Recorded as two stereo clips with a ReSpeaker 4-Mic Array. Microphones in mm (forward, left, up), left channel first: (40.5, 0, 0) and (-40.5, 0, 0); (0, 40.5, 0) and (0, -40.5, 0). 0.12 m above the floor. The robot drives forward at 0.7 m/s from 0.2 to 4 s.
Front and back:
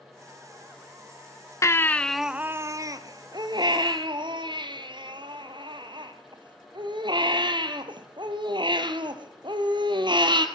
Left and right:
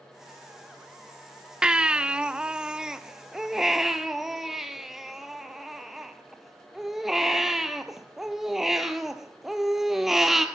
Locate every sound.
1.6 s a baby crying: 15° right, 0.6 m; by 10.4 s 175° right, 1.4 m